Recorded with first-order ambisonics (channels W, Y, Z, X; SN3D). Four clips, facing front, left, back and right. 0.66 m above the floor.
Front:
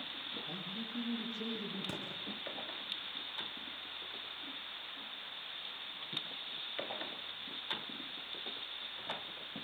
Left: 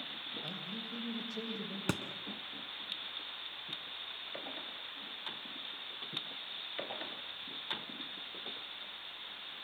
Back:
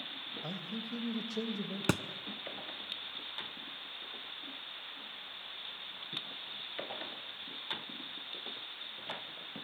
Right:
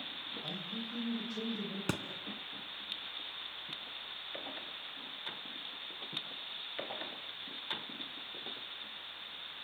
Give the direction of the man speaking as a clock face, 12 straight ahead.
6 o'clock.